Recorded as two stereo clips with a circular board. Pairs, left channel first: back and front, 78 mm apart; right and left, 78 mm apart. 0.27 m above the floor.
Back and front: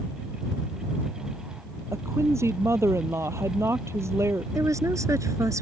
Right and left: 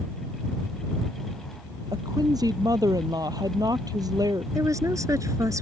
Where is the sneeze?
I don't hear a sneeze.